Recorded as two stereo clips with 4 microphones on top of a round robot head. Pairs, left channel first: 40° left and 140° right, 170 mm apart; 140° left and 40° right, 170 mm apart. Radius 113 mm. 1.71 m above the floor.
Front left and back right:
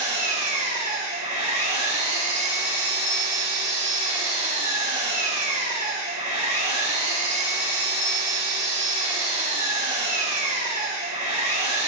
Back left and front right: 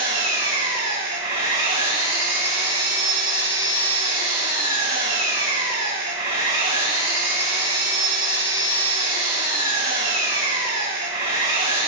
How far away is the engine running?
About 5 m.